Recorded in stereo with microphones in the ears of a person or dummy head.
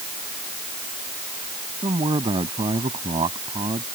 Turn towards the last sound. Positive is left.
turn(degrees=-30)  # may be behind; listen again after turning